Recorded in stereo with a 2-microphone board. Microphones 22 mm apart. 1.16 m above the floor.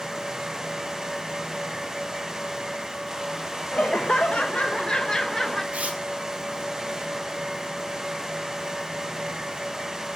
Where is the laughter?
70° left (ahead or behind), 0.9 m; by 5.6 s 20° left (ahead or behind), 1.2 m.